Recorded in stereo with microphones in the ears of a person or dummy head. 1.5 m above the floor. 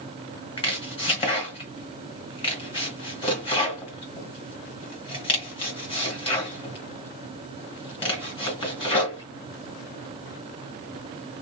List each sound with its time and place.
0.6 s chopping: 25° left (ahead or behind), 1.3 m